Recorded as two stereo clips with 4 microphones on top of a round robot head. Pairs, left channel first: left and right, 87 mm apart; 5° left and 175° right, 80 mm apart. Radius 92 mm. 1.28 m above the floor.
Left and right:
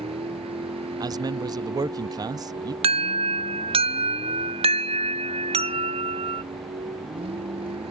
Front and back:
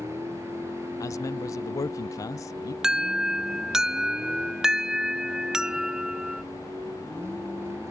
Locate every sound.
0.0 s a vehicle: 110° right
1.0 s a man speaking: 45° right
2.8 s an alarm: 90° right